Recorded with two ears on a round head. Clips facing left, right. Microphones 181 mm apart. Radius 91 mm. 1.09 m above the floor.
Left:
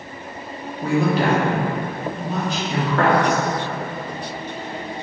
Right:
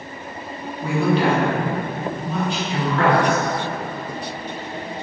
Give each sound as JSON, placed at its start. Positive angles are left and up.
{"t": 0.8, "sound": "a woman speaking", "side_deg": 35, "distance_m": 0.7}